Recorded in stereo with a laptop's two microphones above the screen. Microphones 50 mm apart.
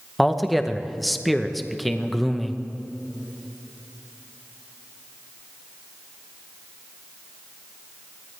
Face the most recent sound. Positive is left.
turn(degrees=0)  # may be behind; listen again after turning